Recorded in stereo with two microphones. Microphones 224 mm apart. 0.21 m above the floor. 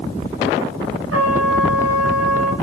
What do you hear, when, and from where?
1.1 s a trumpet: 80° right, 7.5 m